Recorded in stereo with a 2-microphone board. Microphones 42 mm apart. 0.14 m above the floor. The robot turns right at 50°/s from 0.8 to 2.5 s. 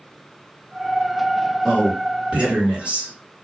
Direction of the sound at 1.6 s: 175° right.